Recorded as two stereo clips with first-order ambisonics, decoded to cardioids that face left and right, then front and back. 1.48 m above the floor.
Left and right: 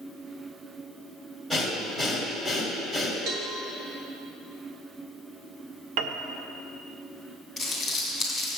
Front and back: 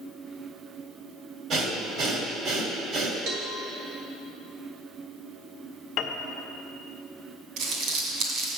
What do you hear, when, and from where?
1.5 s breathing: straight behind, 1.5 m
3.3 s a cowbell: 135° right, 1.2 m
6.0 s a piano: 55° right, 0.6 m
7.6 s crumpling: 170° left, 2.5 m